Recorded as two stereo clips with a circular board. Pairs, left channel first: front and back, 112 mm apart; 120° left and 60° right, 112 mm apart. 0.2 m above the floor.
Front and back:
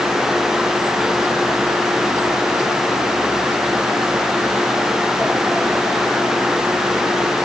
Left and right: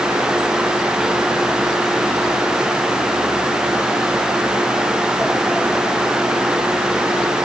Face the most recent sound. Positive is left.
No sound to turn to.